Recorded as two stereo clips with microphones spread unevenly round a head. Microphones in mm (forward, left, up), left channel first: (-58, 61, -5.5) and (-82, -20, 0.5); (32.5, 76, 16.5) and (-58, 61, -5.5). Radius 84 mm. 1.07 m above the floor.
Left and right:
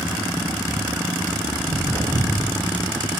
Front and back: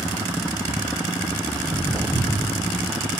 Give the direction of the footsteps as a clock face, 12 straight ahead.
3 o'clock.